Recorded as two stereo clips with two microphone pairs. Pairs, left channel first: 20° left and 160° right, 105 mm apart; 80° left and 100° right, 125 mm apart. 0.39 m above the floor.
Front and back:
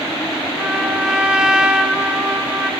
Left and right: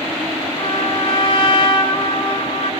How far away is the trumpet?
About 3 m.